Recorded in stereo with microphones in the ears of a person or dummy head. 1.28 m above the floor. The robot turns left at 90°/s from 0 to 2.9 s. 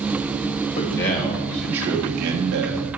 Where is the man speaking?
80° left, 2.0 m; by 2.8 s 105° right, 2.0 m.